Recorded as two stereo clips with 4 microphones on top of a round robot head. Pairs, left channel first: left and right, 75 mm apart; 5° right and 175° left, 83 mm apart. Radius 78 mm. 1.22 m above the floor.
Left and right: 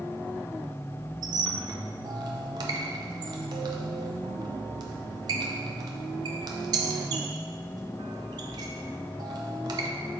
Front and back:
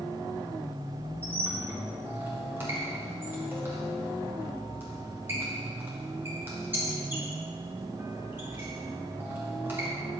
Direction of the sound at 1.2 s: 110° right.